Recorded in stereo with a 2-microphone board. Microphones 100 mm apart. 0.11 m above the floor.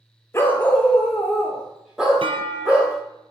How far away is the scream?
No scream in this recording.